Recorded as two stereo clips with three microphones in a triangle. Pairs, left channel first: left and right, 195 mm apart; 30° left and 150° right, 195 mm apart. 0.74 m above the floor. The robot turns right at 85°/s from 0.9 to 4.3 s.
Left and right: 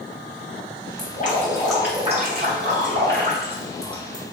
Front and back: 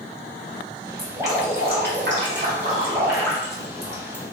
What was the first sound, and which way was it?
Dripping, 115° left.